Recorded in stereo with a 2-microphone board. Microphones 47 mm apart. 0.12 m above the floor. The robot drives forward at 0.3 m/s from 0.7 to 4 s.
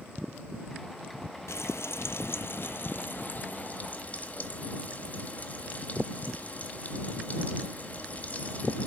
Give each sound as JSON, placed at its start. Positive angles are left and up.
{"t": 1.5, "sound": "frying", "side_deg": 75, "distance_m": 0.6}